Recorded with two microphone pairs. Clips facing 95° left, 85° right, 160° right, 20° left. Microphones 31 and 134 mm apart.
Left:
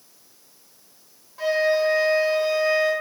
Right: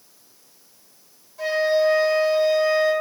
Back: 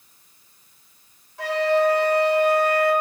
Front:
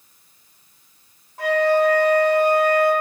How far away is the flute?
About 1.2 m.